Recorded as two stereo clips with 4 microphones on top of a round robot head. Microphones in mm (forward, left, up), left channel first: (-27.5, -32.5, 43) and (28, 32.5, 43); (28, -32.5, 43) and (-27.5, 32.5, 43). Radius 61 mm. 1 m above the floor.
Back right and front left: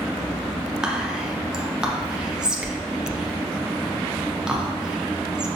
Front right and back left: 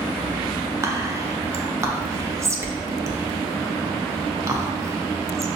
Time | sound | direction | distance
0.8 | whispering | 125° left | 0.6 m